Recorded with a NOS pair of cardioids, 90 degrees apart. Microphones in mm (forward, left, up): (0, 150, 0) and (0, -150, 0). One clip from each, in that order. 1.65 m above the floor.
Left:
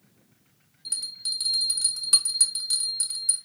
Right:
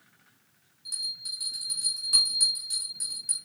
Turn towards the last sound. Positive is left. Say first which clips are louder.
# left 2 dB
turn(degrees=55)